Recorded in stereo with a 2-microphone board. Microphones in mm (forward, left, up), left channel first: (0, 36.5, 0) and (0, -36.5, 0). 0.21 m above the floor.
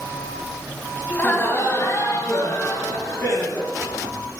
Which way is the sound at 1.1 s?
20° left (ahead or behind).